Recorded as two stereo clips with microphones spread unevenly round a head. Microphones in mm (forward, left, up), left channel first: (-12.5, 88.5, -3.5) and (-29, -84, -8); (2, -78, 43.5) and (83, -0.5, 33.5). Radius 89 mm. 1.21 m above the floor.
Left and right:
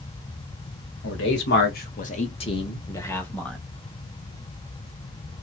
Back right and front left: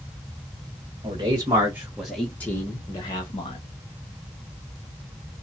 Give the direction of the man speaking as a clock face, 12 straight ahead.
9 o'clock.